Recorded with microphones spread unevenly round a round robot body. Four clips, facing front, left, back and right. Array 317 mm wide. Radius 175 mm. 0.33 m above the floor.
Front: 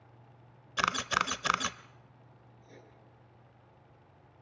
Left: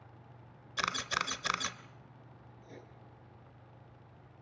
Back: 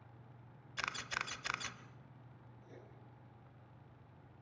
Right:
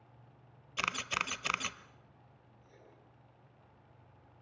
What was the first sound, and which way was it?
A camera shutter, 5° left.